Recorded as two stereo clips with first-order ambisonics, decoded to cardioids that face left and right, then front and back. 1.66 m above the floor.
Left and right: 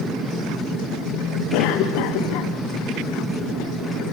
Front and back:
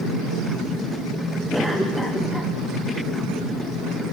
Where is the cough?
90° left, 1.1 m.